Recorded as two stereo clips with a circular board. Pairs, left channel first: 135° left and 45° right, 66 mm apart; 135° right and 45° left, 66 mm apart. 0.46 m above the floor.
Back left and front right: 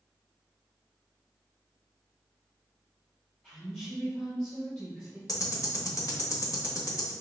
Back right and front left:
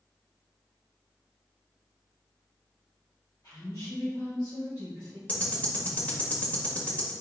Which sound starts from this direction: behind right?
A woman speaking, at 3.4 s.